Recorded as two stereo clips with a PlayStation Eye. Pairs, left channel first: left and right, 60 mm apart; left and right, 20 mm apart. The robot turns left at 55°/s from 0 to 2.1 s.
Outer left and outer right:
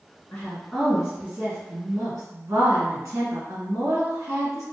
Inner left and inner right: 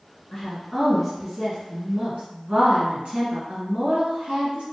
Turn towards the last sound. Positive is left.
turn(degrees=-70)